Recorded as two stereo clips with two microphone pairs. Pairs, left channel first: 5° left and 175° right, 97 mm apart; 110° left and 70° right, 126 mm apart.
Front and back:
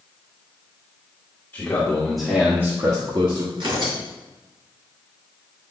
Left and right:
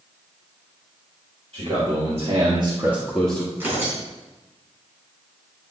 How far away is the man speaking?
About 2 m.